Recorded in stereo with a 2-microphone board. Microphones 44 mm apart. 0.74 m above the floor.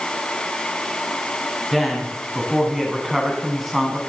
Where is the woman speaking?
Centre (ahead or behind), 5.5 m.